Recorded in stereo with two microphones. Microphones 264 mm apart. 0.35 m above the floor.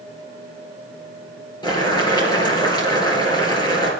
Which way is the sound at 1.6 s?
15° left (ahead or behind).